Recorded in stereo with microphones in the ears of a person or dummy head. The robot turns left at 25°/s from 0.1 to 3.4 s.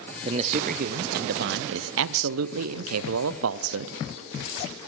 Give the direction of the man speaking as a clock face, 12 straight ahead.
1 o'clock.